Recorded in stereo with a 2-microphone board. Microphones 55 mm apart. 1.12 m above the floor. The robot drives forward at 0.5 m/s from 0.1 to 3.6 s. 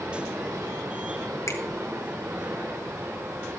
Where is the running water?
85° right, 4 m; by 3.6 s 65° right (ahead or behind), 4.5 m.